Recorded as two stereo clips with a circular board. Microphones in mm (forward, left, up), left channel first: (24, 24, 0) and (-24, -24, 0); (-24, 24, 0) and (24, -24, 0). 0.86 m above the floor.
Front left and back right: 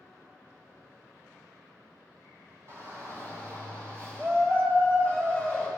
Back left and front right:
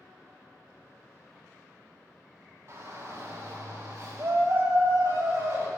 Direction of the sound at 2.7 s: 90° right.